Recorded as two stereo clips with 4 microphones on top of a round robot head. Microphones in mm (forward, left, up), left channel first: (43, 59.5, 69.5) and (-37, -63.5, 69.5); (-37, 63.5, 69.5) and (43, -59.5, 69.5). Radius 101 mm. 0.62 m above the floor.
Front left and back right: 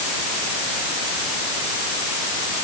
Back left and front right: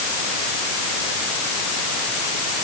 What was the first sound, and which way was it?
Only background noise.